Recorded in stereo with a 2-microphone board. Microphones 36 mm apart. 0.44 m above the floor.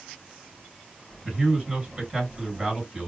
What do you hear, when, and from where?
1.2 s a man speaking: 20° right (ahead or behind), 4 m